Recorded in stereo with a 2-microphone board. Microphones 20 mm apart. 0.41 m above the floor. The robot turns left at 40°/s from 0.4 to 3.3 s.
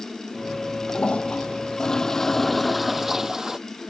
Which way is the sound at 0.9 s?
70° left.